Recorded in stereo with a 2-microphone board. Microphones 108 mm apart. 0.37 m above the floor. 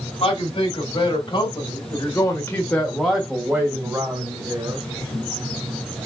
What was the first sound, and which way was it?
A man speaking, 50° left (ahead or behind).